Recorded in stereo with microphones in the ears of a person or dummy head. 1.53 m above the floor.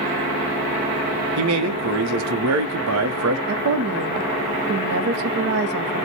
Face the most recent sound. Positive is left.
turn(degrees=-60)  # may be behind; listen again after turning